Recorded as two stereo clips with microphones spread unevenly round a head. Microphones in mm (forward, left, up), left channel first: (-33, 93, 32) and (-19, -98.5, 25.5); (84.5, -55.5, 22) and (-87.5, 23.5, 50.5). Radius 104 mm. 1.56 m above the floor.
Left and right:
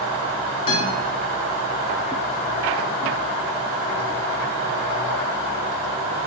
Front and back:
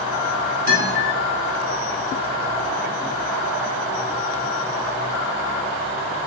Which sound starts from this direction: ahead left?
A guitar, at 0.7 s.